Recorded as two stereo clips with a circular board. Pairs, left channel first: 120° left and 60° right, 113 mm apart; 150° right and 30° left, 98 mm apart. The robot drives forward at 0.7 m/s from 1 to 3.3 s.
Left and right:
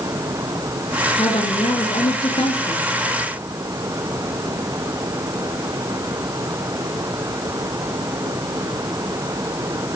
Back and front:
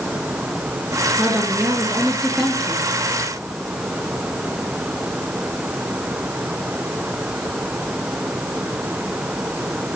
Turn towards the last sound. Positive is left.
turn(degrees=130)